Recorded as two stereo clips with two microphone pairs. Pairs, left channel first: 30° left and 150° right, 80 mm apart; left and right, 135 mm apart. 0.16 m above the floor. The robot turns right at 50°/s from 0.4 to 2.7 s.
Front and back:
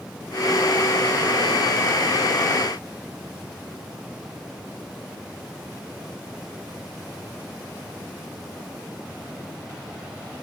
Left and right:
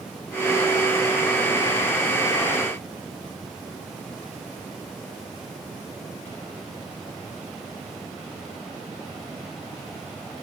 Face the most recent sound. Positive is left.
No sound to turn to.